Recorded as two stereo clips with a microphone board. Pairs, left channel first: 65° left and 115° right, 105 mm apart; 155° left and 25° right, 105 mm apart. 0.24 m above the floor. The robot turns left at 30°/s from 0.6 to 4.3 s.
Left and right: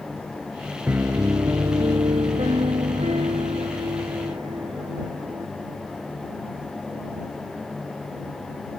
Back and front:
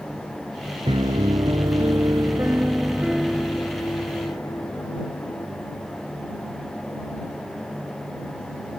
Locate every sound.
0.9 s a piano: 40° right; by 5.5 s 145° right